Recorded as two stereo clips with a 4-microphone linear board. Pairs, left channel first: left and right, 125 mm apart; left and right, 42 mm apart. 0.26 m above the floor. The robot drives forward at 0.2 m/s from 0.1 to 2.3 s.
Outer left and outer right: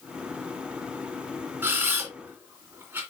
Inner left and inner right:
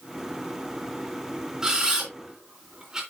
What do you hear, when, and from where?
1.6 s a camera shutter: 15° right (ahead or behind), 3 m